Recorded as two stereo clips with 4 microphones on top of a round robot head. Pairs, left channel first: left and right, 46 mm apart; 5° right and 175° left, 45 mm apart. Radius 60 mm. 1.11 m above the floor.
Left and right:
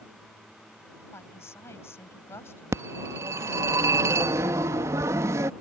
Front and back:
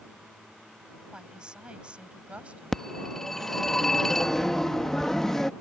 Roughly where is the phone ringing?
Right.